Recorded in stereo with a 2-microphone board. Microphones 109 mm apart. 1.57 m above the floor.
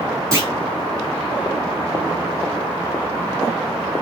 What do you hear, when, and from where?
0.3 s a clunk: 30° right (ahead or behind), 1.5 m